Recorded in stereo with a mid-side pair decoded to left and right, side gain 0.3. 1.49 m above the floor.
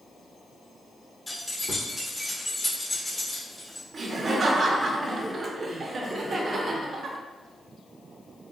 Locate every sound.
1.3 s keys jangling: 15° left, 1.4 m
3.9 s laughter: 55° right, 0.7 m